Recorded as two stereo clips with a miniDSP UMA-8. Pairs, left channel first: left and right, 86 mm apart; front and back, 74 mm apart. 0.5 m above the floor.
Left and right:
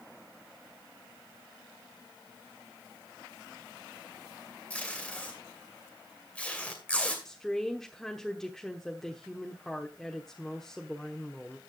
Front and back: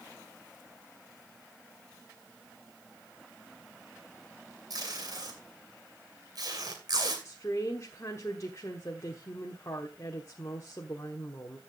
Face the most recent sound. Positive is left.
turn(degrees=10)